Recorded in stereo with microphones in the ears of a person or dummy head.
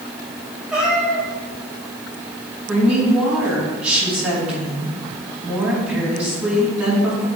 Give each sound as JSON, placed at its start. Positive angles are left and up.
{"t": 0.7, "sound": "a cat meowing", "side_deg": -5, "distance_m": 1.4}
{"t": 2.7, "sound": "a woman speaking", "side_deg": -5, "distance_m": 3.0}